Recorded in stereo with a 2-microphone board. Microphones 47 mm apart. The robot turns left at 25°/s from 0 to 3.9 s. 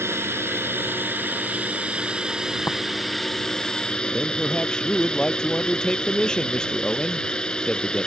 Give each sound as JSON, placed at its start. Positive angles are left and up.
{"t": 0.0, "sound": "a drone", "azimuth_deg": -100}
{"t": 2.7, "sound": "tapping", "side_deg": 60}
{"t": 4.1, "sound": "a man speaking", "side_deg": 15}